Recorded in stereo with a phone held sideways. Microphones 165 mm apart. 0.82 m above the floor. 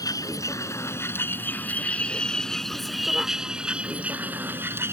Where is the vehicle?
20° left (ahead or behind); by 4.9 s 15° right (ahead or behind).